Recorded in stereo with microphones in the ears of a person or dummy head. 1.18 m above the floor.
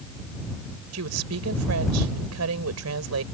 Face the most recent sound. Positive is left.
turn(degrees=-80)